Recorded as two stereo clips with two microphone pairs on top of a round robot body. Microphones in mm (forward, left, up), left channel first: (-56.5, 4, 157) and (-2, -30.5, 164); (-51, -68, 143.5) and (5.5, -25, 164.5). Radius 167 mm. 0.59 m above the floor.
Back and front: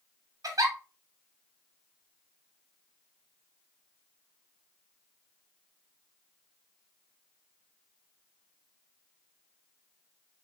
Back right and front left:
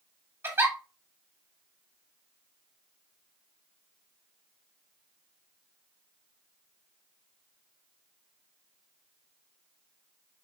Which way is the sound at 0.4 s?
30° right.